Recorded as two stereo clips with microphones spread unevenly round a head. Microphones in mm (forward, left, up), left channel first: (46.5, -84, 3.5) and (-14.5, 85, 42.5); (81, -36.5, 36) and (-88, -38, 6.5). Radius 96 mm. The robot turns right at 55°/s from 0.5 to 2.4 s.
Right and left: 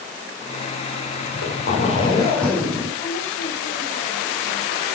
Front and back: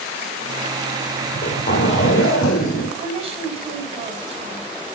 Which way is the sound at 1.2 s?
55° right.